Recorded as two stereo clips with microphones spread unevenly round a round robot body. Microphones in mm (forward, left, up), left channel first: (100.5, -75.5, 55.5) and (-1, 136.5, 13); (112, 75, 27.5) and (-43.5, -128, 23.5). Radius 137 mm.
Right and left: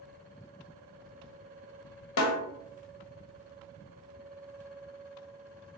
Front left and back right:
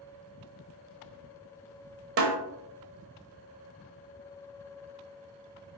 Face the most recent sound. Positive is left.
turn(degrees=-90)